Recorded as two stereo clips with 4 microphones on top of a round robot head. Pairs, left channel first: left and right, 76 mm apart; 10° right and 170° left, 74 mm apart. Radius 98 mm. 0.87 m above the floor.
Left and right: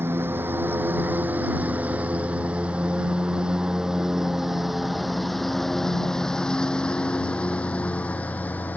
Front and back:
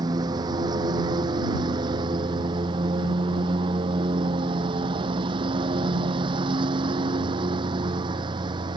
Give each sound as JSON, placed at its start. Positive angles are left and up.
{"t": 0.0, "sound": "a lawn mower", "azimuth_deg": -150}